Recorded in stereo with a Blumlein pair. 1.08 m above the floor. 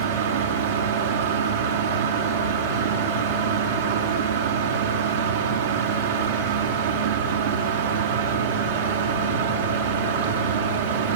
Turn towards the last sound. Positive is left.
turn(degrees=-70)